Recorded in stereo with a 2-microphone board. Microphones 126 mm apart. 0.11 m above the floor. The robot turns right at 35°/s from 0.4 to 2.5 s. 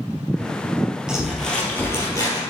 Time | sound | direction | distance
1.1 | crumpling | 10° right | 3 m